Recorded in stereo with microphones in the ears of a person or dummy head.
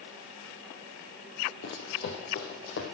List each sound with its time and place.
1.6 s running footsteps: 55° left (ahead or behind), 2.5 m; by 2.9 s 65° left (ahead or behind), 3 m